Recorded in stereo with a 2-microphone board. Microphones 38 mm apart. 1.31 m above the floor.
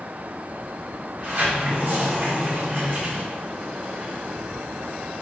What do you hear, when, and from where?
1.2 s a sliding door: 45° right (ahead or behind), 1.9 m